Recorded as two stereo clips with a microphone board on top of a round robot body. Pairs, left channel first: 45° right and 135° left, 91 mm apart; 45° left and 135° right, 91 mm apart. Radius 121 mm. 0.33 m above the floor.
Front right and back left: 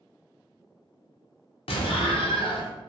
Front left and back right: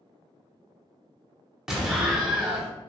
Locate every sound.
1.7 s an explosion: 50° right, 0.7 m